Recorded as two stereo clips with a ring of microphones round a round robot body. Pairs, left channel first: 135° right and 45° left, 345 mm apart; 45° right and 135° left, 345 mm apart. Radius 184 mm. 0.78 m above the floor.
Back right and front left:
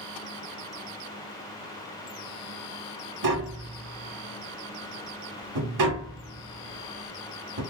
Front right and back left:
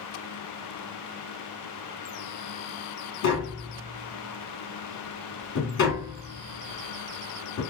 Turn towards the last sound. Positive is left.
turn(degrees=10)